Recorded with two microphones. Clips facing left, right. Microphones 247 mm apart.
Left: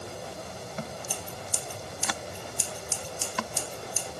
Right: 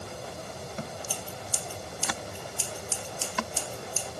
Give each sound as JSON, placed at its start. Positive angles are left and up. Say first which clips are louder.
{"t": 1.1, "sound": "scissors", "louder": "even", "side_deg": 15, "distance_m": 3.5}